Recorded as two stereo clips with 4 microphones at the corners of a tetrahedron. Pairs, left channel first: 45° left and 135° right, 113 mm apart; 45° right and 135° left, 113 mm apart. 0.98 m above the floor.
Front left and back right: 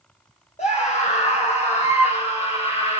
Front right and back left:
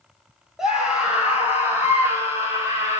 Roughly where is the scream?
Ahead left.